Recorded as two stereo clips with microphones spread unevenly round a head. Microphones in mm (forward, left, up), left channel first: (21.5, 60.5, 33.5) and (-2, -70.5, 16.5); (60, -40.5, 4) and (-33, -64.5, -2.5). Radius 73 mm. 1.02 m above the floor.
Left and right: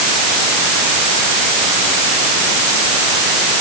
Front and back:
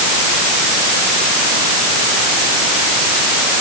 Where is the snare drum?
I don't hear a snare drum.